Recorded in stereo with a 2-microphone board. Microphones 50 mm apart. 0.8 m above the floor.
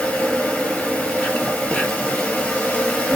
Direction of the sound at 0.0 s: 25° left (ahead or behind).